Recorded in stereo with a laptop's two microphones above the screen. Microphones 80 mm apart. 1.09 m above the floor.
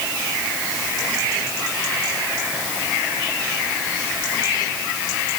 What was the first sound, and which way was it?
Only background noise.